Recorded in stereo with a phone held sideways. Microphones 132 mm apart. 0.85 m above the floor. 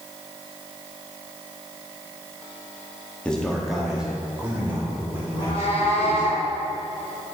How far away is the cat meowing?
About 2.5 m.